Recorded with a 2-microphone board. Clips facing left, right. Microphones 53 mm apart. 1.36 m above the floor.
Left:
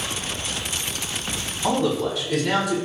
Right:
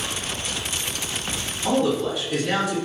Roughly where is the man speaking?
Left.